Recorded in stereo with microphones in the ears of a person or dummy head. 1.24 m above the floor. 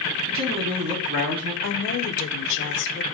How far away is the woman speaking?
About 0.6 m.